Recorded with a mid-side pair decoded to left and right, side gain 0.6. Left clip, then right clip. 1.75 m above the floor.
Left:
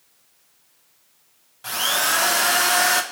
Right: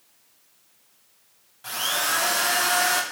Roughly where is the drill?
Ahead left.